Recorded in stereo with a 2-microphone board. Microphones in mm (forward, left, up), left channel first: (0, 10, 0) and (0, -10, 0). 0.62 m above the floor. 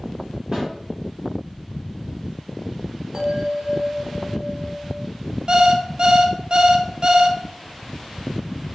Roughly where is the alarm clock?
Right.